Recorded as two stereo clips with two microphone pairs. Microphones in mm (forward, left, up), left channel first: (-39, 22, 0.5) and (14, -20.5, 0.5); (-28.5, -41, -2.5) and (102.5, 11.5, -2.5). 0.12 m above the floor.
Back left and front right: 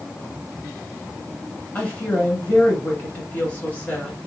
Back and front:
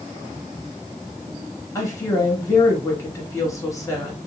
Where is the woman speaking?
165° left, 1.1 m.